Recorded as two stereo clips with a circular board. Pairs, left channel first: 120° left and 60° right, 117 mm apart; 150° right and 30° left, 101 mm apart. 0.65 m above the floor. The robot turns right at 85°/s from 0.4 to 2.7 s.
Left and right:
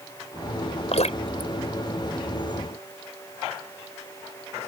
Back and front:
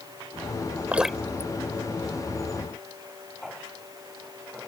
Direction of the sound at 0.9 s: 100° left.